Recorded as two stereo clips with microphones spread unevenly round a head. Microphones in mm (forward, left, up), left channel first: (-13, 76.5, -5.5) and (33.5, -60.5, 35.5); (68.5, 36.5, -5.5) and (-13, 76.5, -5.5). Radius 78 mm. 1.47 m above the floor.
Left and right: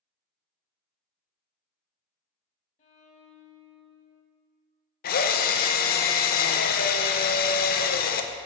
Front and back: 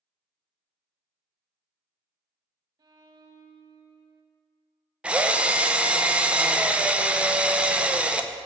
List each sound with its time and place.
2.8 s a violin: 155° left, 1.1 m
5.0 s a drill: 75° left, 0.7 m